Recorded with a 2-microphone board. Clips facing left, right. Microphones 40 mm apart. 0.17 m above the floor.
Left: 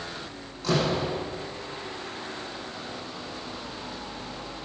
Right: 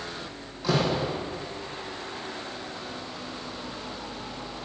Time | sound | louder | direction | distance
0.6 | a door slam | even | 10° right (ahead or behind) | 5.5 m